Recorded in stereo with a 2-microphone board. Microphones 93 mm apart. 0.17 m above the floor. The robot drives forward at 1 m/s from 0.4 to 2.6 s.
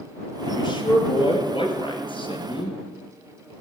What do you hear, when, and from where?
0.5 s a man speaking: 50° left (ahead or behind), 3.5 m; by 2.8 s 65° left (ahead or behind), 3 m